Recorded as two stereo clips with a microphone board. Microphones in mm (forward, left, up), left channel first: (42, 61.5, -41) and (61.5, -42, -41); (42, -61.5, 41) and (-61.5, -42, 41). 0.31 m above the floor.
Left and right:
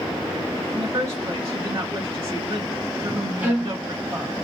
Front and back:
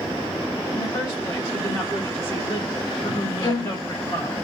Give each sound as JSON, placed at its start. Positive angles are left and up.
{"t": 0.7, "sound": "a woman speaking", "azimuth_deg": -55, "distance_m": 1.7}
{"t": 3.4, "sound": "a violin", "azimuth_deg": -15, "distance_m": 1.3}